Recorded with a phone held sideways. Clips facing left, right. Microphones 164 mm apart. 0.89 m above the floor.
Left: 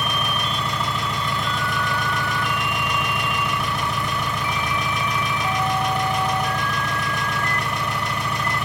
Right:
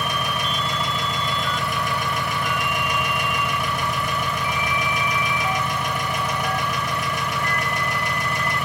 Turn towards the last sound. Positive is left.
turn(degrees=-10)  # may be behind; listen again after turning